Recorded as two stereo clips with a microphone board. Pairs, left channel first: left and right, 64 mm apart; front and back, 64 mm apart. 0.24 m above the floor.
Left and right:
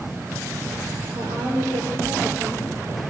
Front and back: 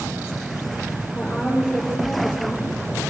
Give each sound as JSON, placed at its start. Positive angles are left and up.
{"t": 1.1, "sound": "a woman speaking", "azimuth_deg": -80, "distance_m": 6.0}